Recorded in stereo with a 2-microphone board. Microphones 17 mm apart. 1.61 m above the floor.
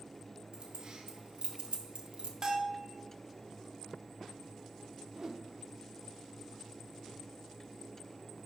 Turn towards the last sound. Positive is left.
turn(degrees=-40)  # may be behind; listen again after turning